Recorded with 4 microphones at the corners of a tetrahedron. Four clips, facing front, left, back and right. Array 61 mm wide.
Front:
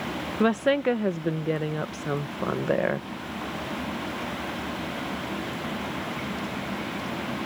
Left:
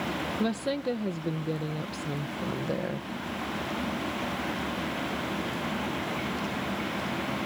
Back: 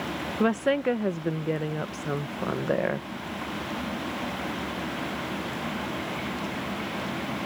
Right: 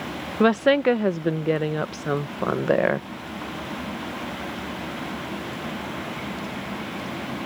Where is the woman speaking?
90° right.